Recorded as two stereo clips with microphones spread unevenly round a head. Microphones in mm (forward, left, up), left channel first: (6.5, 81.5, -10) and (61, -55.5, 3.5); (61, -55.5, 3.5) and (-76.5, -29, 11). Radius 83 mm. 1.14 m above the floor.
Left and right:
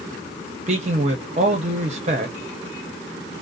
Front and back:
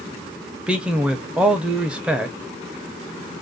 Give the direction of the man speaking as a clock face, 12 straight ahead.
4 o'clock.